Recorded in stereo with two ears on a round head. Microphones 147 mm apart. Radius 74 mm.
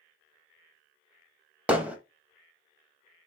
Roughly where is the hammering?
Centre.